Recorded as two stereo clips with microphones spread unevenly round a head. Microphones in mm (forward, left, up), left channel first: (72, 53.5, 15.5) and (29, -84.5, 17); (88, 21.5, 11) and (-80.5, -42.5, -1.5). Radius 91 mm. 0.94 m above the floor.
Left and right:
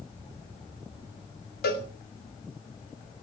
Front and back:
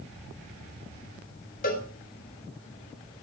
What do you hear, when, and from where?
1.6 s a cowbell: 70° left, 3 m